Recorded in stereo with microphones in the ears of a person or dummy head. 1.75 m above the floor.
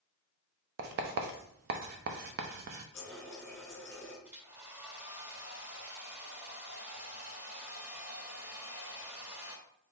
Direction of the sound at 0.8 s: 50° right (ahead or behind).